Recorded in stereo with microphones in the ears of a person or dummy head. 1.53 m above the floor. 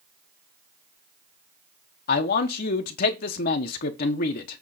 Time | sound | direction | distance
2.1 | a man speaking | 50° left (ahead or behind) | 1.0 m